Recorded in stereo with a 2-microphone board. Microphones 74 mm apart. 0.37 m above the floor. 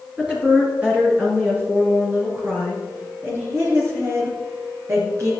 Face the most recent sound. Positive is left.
turn(degrees=-45)  # may be behind; listen again after turning